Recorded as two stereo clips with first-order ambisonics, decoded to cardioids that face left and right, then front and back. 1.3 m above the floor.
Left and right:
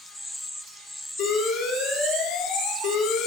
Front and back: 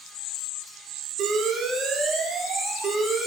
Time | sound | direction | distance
1.2 | an alarm | 120° left | 3 m